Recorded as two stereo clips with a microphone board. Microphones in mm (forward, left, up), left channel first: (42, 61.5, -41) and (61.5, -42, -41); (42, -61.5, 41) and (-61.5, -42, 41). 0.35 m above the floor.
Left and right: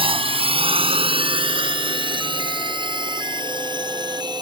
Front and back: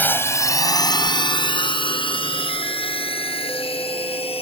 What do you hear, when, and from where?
0.0 s a drone: 80° right; by 4.4 s 35° right